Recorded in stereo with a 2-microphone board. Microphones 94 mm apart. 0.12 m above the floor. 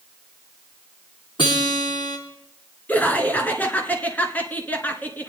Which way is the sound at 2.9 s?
20° left (ahead or behind).